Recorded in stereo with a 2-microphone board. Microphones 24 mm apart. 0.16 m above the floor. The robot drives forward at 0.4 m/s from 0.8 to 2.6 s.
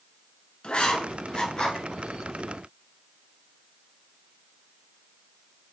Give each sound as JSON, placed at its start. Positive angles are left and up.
{"t": 0.6, "sound": "writing", "side_deg": 40, "distance_m": 0.7}